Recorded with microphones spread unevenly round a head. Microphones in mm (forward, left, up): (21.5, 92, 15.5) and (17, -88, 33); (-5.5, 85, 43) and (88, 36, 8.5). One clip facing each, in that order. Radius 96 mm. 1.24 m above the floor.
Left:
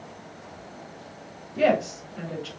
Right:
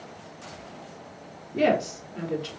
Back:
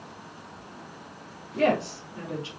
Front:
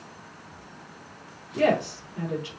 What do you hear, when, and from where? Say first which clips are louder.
1.5 s a woman speaking: left 1 dB, front 1 dB; 135° right, 3.5 m